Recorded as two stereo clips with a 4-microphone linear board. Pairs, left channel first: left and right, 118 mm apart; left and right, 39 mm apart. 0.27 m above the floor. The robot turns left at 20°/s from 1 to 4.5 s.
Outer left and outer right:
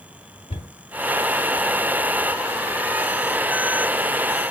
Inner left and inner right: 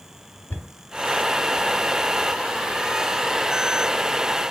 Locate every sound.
0.5 s a cupboard door: 70° left (ahead or behind), 1.7 m